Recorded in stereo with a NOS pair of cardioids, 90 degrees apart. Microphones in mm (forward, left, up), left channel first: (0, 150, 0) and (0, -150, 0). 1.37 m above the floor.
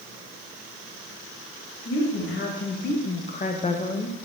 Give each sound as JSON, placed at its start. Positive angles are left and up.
{"t": 1.9, "sound": "a woman speaking", "azimuth_deg": 40, "distance_m": 2.5}